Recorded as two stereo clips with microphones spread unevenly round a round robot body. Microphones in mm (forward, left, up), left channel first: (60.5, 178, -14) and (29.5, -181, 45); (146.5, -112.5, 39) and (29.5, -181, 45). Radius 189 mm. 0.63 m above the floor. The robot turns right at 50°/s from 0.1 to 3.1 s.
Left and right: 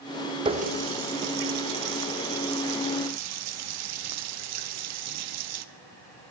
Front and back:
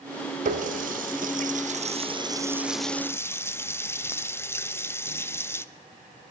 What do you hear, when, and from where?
0.5 s a running tap: 175° right, 0.7 m; by 5.7 s 45° right, 0.7 m